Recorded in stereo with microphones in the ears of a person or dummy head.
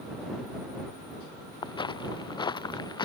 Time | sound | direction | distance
1.6 | footsteps | 25° left (ahead or behind) | ?